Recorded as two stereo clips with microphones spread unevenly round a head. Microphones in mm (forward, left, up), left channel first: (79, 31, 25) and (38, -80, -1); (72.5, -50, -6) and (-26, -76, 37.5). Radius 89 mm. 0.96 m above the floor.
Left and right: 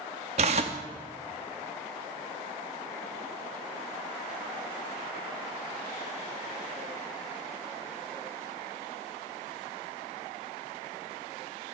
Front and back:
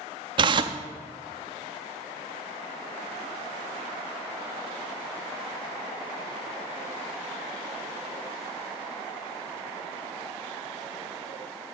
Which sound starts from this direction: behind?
Tearing paper, at 0.4 s.